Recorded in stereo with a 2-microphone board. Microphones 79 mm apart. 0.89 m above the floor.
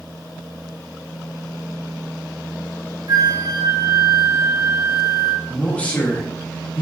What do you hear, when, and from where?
3.1 s a flute: 50° right (ahead or behind), 0.5 m
5.5 s a man speaking: 15° left (ahead or behind), 1.2 m